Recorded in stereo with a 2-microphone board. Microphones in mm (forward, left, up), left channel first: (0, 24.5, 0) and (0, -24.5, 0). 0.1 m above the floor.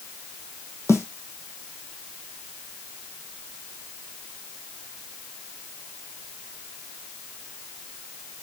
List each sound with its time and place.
0.9 s a snare drum: 70° left (ahead or behind), 2 m